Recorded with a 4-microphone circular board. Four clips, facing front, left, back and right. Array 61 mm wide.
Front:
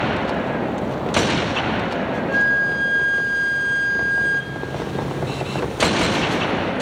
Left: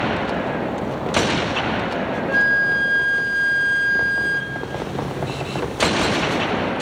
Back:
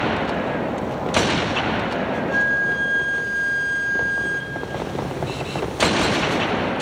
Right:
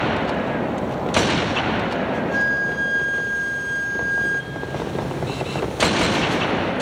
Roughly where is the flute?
Left.